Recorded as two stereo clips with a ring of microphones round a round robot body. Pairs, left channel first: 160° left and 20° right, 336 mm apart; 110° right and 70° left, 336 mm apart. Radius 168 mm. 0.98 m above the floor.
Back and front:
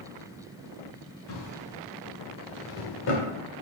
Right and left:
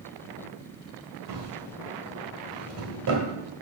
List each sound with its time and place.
1.3 s a drawer: 115° left, 2.5 m